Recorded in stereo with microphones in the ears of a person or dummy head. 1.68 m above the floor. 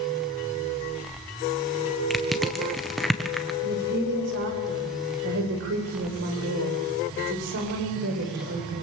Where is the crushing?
Centre (ahead or behind), 1.4 m.